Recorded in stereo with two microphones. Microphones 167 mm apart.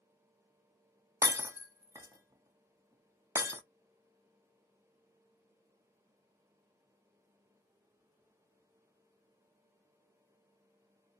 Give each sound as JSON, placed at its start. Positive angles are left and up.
{"t": 1.2, "sound": "breaking glass", "side_deg": -15, "distance_m": 1.0}